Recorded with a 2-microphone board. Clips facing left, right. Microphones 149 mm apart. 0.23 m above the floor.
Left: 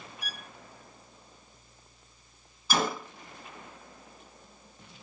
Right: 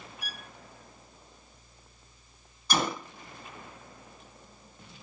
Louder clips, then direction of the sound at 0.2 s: Left 1 dB; 10° right (ahead or behind).